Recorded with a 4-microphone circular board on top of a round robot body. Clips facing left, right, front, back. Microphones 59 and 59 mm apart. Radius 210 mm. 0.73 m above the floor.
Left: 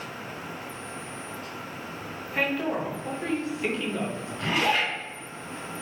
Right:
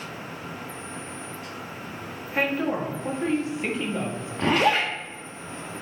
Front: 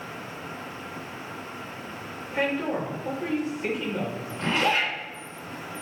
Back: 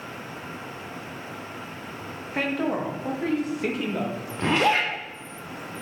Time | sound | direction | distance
2.3 | a woman speaking | 160° right | 2 m
4.4 | a zipper | 135° right | 0.7 m